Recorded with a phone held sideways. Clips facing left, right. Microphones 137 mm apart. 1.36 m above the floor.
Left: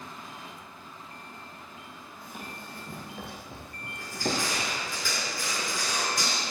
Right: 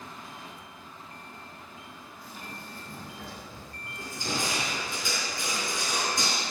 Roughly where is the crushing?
Right.